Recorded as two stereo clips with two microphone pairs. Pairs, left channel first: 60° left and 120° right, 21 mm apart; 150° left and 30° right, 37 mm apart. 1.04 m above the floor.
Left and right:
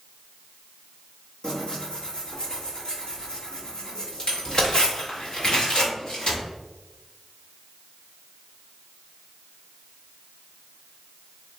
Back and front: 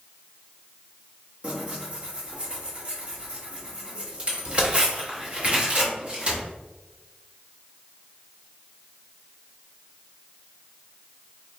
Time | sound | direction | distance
1.4 | tearing paper | 20° left | 1.0 m